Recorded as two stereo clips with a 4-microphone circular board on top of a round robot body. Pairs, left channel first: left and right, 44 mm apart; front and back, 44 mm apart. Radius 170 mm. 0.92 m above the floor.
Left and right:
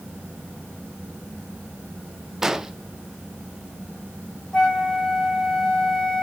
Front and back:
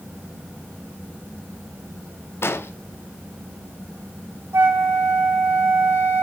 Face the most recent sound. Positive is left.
turn(degrees=165)